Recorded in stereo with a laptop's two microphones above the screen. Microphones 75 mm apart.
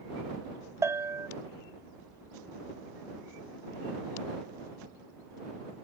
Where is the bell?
40° right (ahead or behind).